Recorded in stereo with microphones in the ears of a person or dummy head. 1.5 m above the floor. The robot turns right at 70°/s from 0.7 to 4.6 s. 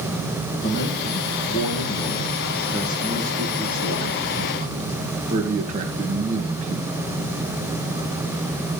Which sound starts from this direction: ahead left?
A man speaking, at 0.6 s.